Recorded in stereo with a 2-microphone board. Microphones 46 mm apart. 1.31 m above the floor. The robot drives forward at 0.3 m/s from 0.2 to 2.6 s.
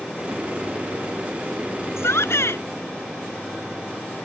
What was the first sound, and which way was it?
A shout, 70° left (ahead or behind).